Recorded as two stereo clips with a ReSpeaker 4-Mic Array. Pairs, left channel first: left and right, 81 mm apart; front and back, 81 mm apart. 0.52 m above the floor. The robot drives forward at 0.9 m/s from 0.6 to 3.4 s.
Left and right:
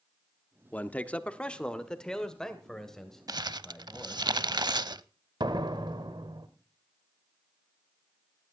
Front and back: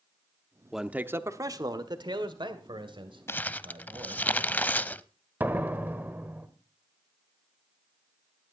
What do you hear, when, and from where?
0.7 s a man speaking: 100° left, 0.8 m; by 4.3 s 175° left, 2.5 m
3.3 s crumpling: 55° right, 0.6 m; by 5.0 s 65° right, 0.5 m
5.4 s a door slam: 115° right, 1.3 m